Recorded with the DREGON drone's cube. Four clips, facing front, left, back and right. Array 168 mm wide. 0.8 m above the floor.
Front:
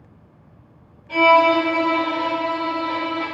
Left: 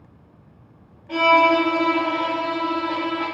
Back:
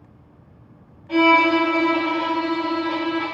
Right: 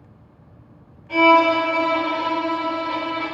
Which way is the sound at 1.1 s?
145° left.